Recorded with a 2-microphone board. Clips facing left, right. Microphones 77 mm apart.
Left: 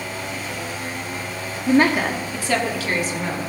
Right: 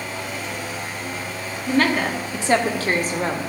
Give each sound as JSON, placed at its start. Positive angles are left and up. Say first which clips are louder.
{"t": 1.7, "sound": "a woman speaking", "louder": "left 3 dB", "side_deg": 30, "distance_m": 1.3}